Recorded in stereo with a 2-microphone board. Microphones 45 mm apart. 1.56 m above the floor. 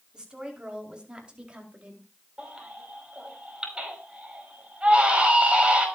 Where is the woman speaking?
20° right (ahead or behind), 5 m; by 2.1 s 25° right (ahead or behind), 4 m.